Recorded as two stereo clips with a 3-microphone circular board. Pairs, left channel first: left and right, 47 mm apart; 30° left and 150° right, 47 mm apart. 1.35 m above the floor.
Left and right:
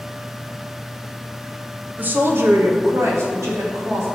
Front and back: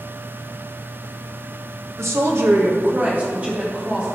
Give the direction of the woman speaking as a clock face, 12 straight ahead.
5 o'clock.